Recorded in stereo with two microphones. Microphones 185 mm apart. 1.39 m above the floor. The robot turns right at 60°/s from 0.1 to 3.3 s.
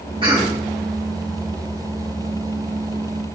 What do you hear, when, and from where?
0.2 s a cough: 25° right (ahead or behind), 1.9 m; by 0.6 s 5° right (ahead or behind), 1.9 m